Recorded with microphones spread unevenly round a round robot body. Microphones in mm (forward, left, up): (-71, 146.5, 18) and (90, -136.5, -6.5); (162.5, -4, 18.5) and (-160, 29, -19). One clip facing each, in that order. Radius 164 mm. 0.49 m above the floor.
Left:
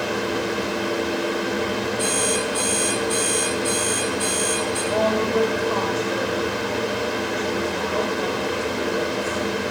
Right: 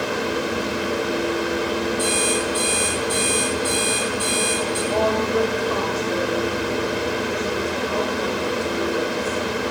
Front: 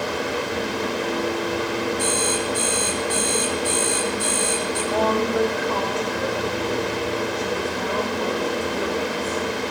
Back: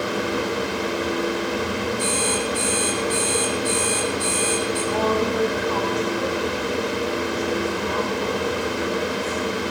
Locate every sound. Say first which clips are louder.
2.0 s an alarm clock: right 1 dB, even; 45° right, 9.5 m
4.9 s a woman speaking: even, front 2 dB; 15° left, 2.5 m